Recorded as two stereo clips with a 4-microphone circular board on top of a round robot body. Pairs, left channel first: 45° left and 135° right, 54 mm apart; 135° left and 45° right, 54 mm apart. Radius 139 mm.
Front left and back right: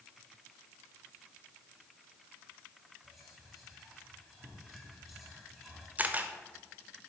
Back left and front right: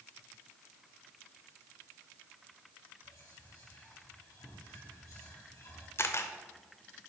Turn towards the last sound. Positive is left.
turn(degrees=165)